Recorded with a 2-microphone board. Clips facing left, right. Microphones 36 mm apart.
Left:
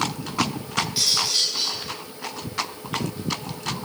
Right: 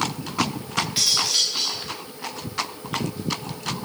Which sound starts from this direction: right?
Cutlery clinking, at 1.0 s.